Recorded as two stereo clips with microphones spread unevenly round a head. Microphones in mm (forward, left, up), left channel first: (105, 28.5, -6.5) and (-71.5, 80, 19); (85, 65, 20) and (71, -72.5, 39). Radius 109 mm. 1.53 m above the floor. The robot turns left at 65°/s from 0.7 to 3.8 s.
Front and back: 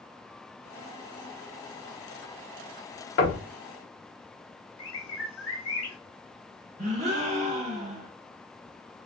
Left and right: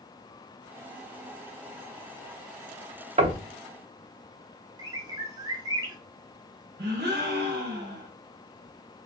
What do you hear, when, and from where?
3.2 s knocking: 60° right, 0.8 m; by 3.4 s 80° right, 0.8 m
4.8 s a bird: 40° right, 1.0 m
6.8 s a gasp: 135° right, 0.7 m